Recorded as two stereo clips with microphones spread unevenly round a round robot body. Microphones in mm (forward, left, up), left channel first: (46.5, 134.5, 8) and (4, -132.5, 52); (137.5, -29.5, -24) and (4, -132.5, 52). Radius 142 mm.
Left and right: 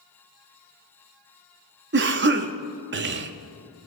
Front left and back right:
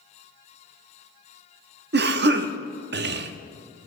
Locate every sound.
1.9 s a cough: 135° right, 0.7 m